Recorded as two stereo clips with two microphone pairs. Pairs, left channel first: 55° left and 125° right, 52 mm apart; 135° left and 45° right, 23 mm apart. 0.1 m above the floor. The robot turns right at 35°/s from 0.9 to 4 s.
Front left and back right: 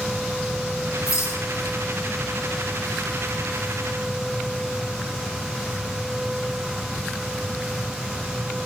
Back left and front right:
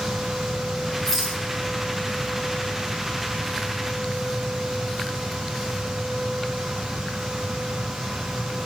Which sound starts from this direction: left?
A rattle, at 1.1 s.